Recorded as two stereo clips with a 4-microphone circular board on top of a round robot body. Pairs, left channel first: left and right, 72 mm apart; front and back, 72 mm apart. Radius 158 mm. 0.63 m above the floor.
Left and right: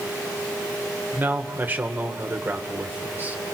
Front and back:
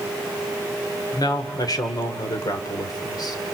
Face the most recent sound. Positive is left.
turn(degrees=-25)